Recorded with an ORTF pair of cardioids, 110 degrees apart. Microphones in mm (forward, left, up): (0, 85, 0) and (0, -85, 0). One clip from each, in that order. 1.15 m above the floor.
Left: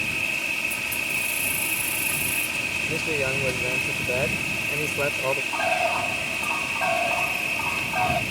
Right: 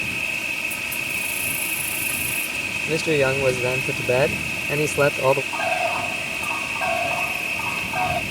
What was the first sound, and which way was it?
An insect, straight ahead.